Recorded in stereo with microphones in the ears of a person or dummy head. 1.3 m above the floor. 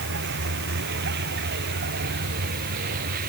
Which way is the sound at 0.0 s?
60° right (ahead or behind).